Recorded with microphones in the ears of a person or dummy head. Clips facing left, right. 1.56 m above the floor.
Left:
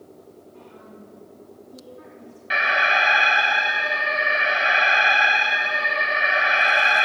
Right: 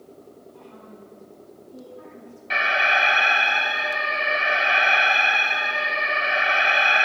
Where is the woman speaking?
15° left (ahead or behind), 4 m.